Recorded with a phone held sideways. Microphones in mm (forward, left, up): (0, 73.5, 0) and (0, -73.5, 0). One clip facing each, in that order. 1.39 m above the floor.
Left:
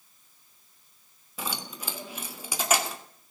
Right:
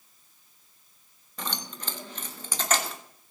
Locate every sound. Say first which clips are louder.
1.4 s keys jangling: left 1 dB; 10° left (ahead or behind), 1.6 m